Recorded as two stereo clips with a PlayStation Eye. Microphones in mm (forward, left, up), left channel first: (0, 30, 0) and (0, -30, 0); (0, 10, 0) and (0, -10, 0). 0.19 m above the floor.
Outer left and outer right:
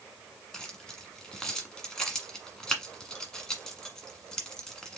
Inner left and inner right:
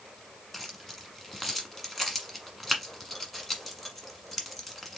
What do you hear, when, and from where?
0.5 s keys jangling: 10° left (ahead or behind), 1.3 m